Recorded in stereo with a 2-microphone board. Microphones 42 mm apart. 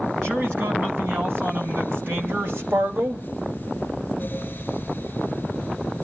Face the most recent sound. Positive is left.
turn(degrees=-55)  # may be behind; listen again after turning